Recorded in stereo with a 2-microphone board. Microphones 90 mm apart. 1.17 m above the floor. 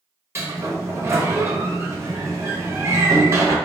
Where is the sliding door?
30° right (ahead or behind), 0.6 m.